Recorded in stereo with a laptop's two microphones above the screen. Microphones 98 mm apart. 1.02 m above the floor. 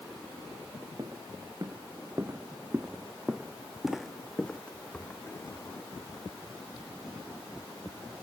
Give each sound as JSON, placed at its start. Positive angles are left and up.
{"t": 1.0, "sound": "footsteps", "side_deg": -40}